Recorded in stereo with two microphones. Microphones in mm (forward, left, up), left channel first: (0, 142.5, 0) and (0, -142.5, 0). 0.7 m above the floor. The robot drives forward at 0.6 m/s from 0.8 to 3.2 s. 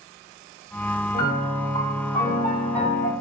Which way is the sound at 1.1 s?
35° left (ahead or behind).